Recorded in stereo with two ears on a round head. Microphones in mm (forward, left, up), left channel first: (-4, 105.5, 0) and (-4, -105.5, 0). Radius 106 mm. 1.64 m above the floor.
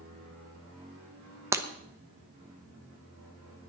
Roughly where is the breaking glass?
Centre.